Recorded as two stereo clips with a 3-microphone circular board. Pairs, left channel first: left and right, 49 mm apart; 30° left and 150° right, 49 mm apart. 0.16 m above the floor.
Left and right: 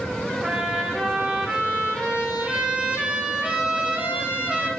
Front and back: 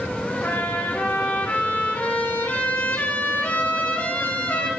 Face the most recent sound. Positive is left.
turn(degrees=-25)